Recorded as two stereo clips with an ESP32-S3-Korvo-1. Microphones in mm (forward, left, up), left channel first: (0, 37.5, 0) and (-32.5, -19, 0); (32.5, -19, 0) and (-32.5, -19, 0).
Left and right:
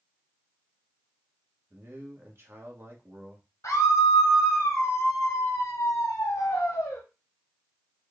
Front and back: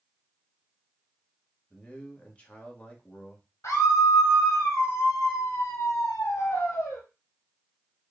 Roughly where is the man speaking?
Right.